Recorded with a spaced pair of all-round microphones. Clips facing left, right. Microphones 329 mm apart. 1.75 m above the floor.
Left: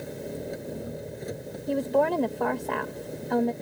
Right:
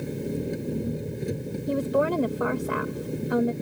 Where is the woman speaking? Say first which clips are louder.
Even; 10° right (ahead or behind).